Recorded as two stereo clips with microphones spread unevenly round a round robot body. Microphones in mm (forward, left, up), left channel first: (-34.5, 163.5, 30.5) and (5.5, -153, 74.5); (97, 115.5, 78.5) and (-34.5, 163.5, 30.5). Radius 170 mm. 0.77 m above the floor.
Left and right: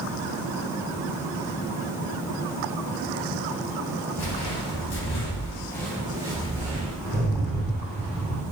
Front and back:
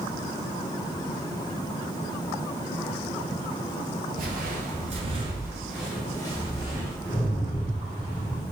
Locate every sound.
4.2 s footsteps: 135° left, 1.2 m; by 6.9 s 25° right, 1.3 m
7.0 s a rattle: 15° right, 1.9 m